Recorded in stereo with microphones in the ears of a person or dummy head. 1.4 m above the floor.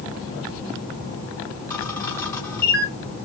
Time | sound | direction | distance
1.7 | a camera shutter | 15° left (ahead or behind) | 0.7 m